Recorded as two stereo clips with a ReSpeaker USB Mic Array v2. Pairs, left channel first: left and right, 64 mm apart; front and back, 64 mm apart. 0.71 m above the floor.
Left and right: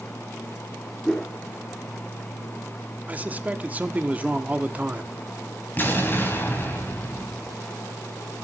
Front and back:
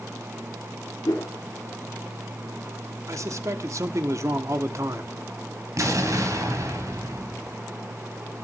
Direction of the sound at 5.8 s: 150° left.